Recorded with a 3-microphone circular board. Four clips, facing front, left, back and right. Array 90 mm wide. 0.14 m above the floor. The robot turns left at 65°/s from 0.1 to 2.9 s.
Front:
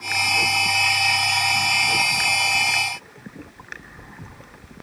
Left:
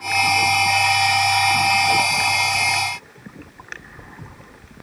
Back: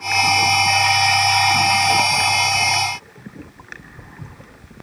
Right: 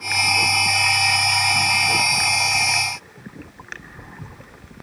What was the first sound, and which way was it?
Only background noise.